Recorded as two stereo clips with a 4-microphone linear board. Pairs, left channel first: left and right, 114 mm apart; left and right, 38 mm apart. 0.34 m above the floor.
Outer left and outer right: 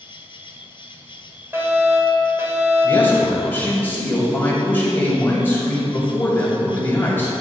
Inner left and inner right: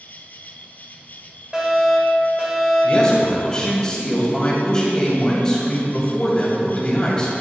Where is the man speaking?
20° left (ahead or behind), 2.5 m.